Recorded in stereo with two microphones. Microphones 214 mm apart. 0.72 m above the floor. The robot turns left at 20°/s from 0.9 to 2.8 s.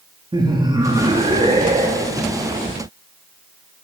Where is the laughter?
20° right (ahead or behind), 1.1 m; by 2.2 s 35° right (ahead or behind), 1.1 m.